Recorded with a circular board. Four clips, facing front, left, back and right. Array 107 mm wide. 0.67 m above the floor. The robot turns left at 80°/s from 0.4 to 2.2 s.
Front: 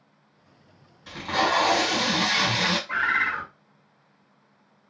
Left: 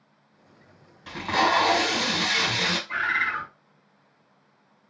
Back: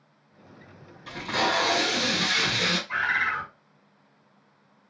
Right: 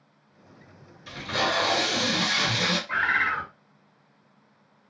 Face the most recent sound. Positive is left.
turn(degrees=-45)